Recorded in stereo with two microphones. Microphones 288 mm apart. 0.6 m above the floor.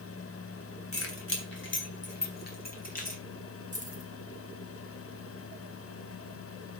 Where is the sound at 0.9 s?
50° left (ahead or behind), 3 m; by 3.2 s 25° left (ahead or behind), 3.5 m.